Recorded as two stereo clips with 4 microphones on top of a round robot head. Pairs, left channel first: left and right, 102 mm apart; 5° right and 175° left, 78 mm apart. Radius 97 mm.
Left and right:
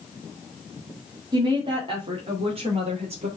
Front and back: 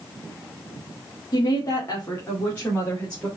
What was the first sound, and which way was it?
A woman speaking, 45° right.